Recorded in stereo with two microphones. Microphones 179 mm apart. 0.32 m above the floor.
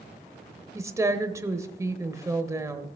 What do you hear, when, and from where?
0.8 s a woman speaking: 15° right (ahead or behind), 0.9 m